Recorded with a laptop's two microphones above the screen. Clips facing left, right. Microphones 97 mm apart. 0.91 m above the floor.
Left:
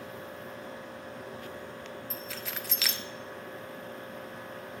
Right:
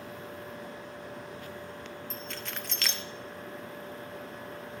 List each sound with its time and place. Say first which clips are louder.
2.1 s keys jangling: even; 5° left (ahead or behind), 0.5 m